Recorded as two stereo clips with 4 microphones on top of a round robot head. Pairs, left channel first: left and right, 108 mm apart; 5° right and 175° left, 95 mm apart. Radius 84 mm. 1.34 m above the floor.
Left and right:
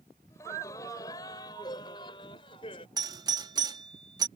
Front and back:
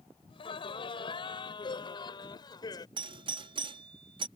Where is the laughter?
20° left; by 2.9 s 35° left.